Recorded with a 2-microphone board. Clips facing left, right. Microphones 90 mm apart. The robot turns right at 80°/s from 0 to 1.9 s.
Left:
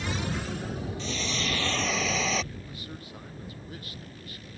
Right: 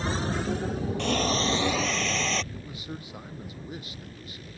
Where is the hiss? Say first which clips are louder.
Right 10 dB; 70° right; by 2.4 s 5° left.